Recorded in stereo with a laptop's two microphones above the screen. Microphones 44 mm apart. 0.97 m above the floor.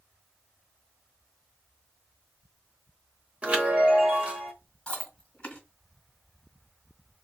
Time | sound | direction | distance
3.4 | a chime | 35° right (ahead or behind) | 0.9 m
4.9 | chewing | 20° left (ahead or behind) | 1.9 m